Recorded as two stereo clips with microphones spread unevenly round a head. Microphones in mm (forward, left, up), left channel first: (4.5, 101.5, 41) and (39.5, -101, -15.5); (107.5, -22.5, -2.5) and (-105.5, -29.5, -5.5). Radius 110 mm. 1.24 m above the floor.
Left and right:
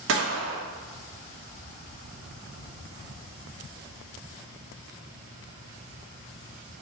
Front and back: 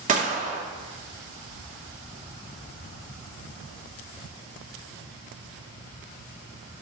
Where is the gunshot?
120° right, 0.7 m.